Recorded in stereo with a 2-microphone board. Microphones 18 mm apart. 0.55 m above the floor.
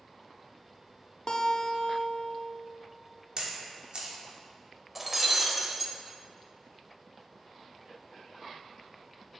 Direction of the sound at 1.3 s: 45° left (ahead or behind).